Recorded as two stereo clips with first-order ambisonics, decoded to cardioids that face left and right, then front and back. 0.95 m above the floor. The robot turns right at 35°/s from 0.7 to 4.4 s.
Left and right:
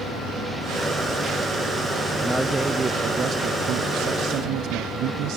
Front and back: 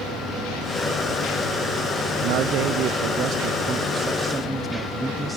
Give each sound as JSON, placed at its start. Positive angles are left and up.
{"t": 2.2, "sound": "a man speaking", "azimuth_deg": 175, "distance_m": 0.5}